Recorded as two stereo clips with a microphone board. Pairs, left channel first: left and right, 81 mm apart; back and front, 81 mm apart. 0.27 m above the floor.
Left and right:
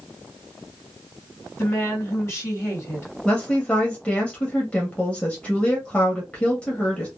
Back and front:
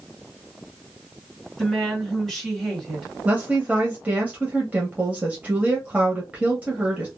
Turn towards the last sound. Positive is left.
turn(degrees=35)